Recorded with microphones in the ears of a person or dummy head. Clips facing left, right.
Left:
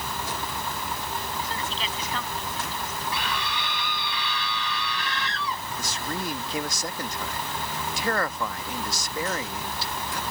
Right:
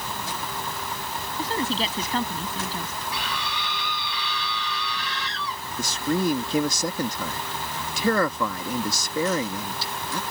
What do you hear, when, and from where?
1.4 s a woman speaking: 30° right (ahead or behind)
3.1 s a scream: 50° left (ahead or behind)
5.8 s a man speaking: 80° right